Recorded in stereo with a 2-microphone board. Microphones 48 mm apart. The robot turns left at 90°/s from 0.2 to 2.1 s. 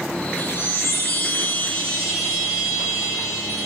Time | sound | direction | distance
0.4 | a chime | 150° left | 3.5 m